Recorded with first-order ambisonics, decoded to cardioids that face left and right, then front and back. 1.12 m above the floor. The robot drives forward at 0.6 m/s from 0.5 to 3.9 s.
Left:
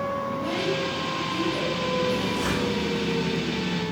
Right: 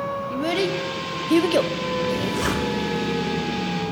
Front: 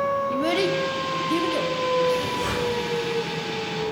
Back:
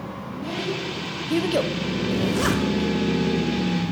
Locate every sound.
0.3 s a child speaking: 40° right, 0.7 m; by 1.7 s 125° right, 0.5 m
2.1 s a zipper: 150° right, 0.9 m; by 2.7 s 160° right, 1.1 m